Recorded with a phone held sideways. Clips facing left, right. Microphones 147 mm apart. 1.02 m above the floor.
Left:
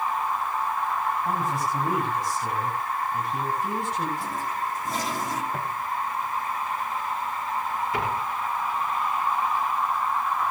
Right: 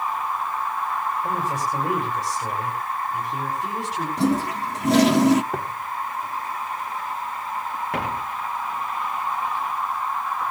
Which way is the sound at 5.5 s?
70° right (ahead or behind).